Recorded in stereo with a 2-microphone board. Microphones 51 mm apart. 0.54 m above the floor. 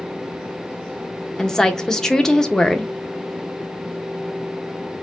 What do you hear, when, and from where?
1.4 s a woman speaking: 10° left (ahead or behind), 0.8 m